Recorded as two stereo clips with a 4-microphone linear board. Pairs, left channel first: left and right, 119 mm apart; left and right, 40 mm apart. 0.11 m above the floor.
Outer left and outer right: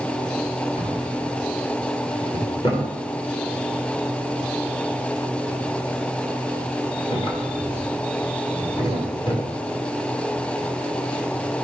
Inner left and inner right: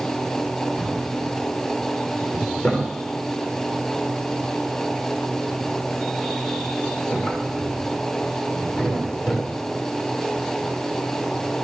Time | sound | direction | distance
0.8 | a drawer | 45° left (ahead or behind) | 7 m